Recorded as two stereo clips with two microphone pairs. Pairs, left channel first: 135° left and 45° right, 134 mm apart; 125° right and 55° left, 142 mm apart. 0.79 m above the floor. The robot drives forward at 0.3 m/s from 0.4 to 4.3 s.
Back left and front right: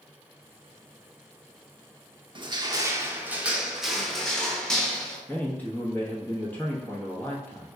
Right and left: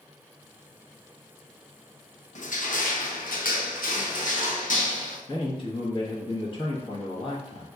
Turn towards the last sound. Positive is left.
turn(degrees=-160)